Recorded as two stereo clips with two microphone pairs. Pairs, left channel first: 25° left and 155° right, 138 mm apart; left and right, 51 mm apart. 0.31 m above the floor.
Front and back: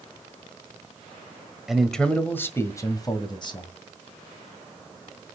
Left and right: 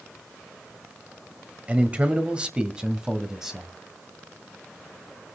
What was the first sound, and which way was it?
A man speaking, 70° right.